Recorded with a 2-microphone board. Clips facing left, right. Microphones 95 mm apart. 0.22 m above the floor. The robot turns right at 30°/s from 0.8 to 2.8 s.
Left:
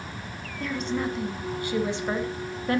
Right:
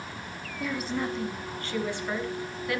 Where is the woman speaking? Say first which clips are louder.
Left 2 dB; 10° right, 1.5 m; by 2.8 s 50° left, 1.5 m.